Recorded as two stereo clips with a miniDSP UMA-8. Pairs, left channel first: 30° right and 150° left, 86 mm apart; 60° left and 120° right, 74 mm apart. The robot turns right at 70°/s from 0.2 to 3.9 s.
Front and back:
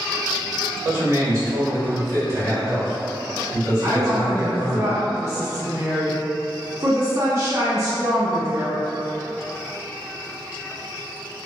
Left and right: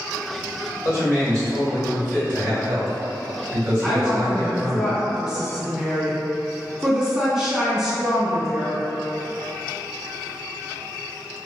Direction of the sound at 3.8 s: 155° left.